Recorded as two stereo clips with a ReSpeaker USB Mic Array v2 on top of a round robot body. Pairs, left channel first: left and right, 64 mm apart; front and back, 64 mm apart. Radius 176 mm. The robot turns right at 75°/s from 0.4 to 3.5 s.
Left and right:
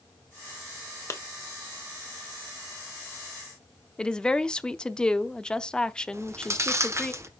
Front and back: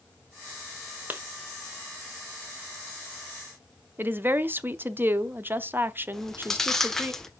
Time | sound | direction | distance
1.1 | a clap | 120° left | 1.7 m
4.0 | a woman speaking | 160° left | 1.0 m
6.1 | chewing | 80° right | 1.7 m